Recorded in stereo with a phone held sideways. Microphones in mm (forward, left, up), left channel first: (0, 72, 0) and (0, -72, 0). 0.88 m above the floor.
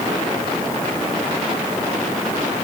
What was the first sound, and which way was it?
Only background noise.